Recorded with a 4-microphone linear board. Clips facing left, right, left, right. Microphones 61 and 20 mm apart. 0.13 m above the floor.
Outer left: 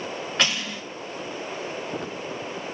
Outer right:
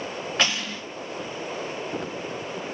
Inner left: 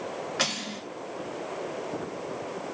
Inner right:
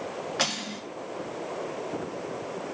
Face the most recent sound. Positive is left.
turn(degrees=-5)  # may be behind; listen again after turning